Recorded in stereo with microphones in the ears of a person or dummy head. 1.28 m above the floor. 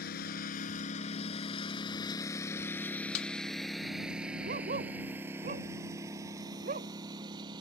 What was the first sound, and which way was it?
A lawn mower, 50° left (ahead or behind).